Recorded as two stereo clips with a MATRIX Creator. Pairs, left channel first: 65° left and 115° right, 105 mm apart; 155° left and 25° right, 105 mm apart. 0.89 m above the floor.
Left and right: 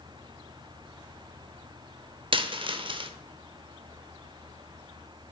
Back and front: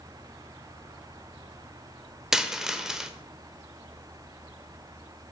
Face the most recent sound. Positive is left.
turn(degrees=-105)